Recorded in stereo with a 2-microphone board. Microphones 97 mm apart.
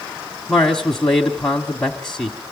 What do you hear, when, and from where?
0.5 s a man speaking: 5° left (ahead or behind), 1.3 m